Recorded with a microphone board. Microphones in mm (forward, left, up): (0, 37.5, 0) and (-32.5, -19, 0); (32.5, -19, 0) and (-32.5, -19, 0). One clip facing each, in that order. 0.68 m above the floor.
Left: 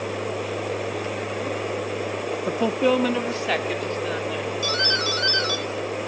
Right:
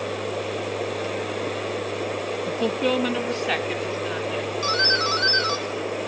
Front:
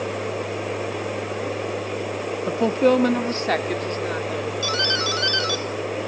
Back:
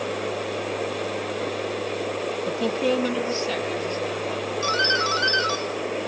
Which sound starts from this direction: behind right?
A doorbell, at 4.6 s.